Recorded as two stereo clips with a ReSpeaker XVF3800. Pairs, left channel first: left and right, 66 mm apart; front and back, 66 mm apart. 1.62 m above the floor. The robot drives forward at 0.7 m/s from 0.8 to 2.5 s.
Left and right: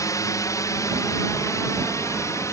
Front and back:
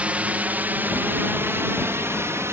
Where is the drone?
110° left; by 2.5 s 130° left.